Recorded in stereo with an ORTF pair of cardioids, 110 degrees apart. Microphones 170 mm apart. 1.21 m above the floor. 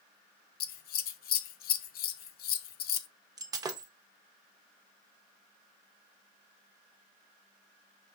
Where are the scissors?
65° left, 0.5 m.